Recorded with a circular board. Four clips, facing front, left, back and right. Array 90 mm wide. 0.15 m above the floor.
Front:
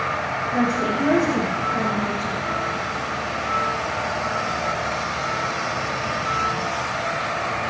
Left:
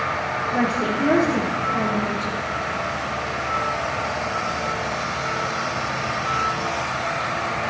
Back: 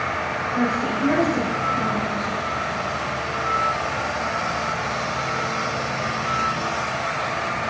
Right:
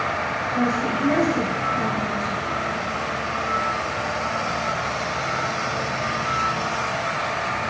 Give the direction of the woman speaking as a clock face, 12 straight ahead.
11 o'clock.